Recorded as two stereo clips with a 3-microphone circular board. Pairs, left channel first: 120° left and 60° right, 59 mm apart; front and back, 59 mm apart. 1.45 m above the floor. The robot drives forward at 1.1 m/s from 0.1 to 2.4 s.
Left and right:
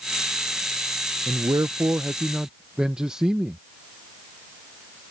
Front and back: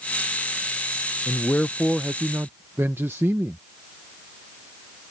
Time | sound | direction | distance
1.3 | a man speaking | 45° right | ?